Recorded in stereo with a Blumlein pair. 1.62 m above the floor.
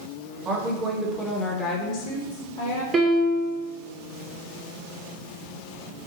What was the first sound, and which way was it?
A woman speaking, 25° right.